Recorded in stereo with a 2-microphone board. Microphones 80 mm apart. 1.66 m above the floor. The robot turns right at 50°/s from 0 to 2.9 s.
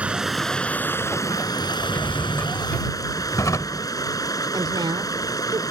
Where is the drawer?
25° left; by 3.9 s 80° left.